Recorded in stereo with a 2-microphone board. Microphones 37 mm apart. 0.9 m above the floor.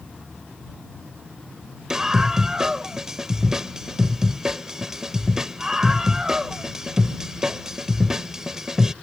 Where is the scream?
15° right (ahead or behind).